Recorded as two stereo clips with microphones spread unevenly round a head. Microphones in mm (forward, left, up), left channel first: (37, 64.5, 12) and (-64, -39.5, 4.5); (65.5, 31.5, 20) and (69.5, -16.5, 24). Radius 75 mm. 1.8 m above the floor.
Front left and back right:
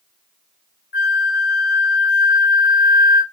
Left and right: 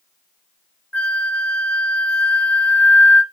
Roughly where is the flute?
Ahead left.